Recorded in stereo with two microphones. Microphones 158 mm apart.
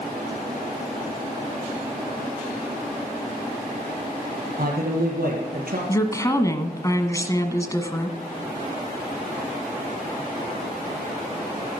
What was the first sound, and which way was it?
A man speaking, 60° right (ahead or behind).